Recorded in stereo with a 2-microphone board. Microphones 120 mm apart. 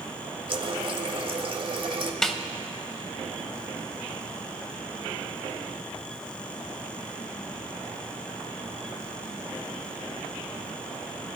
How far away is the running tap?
About 0.9 m.